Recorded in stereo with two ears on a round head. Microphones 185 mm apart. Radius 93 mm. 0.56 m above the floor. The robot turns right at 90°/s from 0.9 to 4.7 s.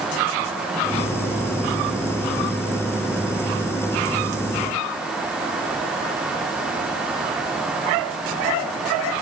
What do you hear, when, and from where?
Only background noise.